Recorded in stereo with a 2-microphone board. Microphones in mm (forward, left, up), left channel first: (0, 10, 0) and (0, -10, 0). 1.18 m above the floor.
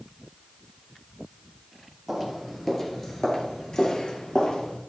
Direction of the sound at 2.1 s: Centre (ahead or behind).